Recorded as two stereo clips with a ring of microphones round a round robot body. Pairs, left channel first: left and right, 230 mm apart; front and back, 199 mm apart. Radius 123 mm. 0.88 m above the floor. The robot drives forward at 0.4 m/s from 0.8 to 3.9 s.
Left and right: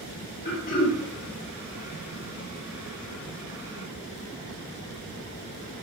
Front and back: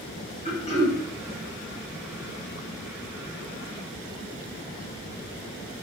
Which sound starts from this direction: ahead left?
Throat clearing, at 0.5 s.